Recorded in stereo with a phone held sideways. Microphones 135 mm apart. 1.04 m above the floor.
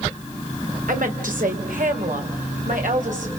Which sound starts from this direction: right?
A woman speaking, at 0.9 s.